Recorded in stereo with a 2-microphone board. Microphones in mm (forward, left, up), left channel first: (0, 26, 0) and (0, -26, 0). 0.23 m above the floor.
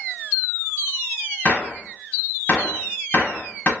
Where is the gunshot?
35° left (ahead or behind), 0.7 m.